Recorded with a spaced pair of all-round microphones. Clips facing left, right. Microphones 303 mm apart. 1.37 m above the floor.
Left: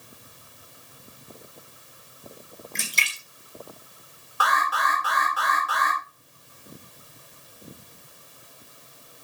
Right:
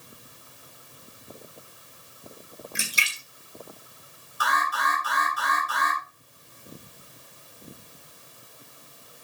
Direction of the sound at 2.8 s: 10° right (ahead or behind).